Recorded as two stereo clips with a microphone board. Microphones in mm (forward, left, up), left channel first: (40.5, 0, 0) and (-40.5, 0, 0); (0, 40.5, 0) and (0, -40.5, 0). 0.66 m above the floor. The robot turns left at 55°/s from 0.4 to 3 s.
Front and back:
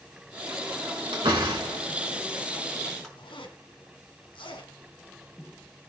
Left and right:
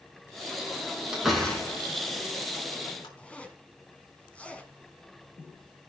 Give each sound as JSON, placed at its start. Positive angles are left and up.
{"t": 1.1, "sound": "a door slam", "azimuth_deg": -170, "distance_m": 5.5}
{"t": 3.2, "sound": "a zipper", "azimuth_deg": 15, "distance_m": 2.5}